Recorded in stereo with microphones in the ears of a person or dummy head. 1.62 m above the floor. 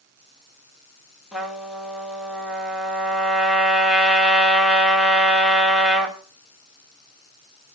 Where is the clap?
I don't hear a clap.